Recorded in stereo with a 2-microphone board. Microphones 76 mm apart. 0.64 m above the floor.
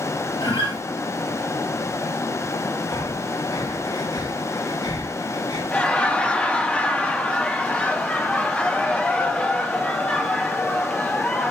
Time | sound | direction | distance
0.4 | a guitar | 80° left | 2.5 m
2.9 | breathing | 70° left (ahead or behind) | 1.8 m
5.7 | laughter | 15° left (ahead or behind) | 1.2 m